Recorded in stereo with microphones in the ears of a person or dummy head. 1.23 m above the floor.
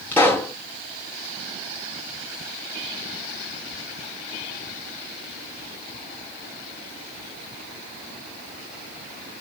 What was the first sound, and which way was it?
A pop, 10° left (ahead or behind).